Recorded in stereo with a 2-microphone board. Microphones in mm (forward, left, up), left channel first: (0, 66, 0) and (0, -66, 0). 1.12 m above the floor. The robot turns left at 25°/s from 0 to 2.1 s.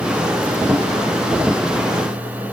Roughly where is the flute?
I don't hear a flute.